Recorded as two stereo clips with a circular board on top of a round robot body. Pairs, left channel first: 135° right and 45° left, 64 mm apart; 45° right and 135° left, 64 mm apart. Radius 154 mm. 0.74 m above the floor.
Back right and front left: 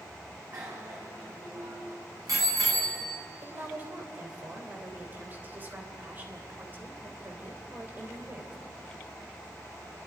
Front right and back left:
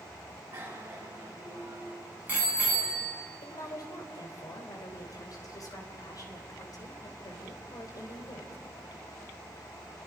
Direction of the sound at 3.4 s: 15° right.